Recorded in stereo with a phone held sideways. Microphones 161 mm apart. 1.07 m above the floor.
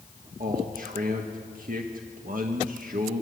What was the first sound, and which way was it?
A man speaking, 65° right (ahead or behind).